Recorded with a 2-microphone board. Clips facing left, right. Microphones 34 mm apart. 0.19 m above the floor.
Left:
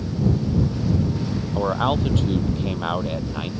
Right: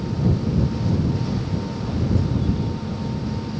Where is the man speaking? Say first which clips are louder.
Left 6 dB; 80° left.